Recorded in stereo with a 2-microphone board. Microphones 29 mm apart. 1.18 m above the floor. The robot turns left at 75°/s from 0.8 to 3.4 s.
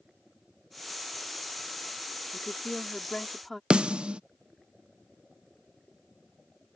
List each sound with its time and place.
2.3 s a woman speaking: 85° left; by 3.6 s 5° left
3.7 s a snare drum: 35° right (ahead or behind)